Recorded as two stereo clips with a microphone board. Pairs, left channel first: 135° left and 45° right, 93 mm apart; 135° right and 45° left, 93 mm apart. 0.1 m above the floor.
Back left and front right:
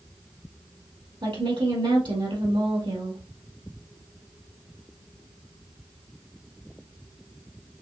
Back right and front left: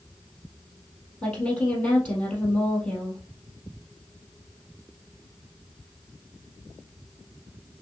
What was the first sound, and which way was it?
A woman speaking, 55° right.